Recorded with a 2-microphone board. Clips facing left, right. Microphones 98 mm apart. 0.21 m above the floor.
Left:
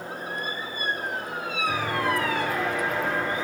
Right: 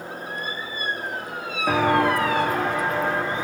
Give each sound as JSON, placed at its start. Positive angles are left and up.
{"t": 1.7, "sound": "footsteps", "side_deg": -80, "distance_m": 0.9}